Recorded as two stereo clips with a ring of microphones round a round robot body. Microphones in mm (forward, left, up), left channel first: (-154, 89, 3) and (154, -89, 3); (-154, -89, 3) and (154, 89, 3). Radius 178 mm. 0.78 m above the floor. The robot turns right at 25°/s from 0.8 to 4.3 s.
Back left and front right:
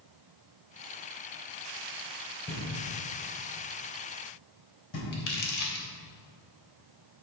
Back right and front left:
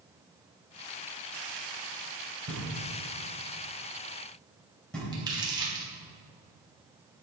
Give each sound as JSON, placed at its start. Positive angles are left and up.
{"t": 2.5, "sound": "knocking", "azimuth_deg": 75, "distance_m": 3.5}
{"t": 5.1, "sound": "crumpling", "azimuth_deg": 110, "distance_m": 2.5}